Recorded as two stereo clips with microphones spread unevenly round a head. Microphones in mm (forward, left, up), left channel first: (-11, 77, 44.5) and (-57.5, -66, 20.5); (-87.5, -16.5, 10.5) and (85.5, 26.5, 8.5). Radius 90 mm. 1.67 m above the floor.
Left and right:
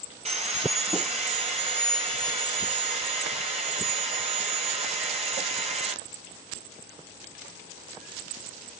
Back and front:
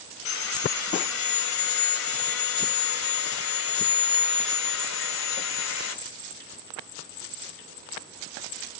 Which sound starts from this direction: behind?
Sawing, at 0.2 s.